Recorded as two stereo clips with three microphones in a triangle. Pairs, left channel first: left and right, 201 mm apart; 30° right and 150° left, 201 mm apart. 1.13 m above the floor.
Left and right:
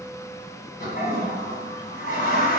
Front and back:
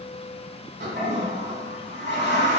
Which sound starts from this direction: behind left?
A toilet flushing, at 0.8 s.